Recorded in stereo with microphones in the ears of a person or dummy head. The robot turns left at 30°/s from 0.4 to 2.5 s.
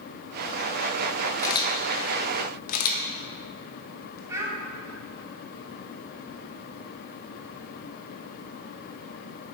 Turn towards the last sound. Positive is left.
turn(degrees=-15)  # may be behind; listen again after turning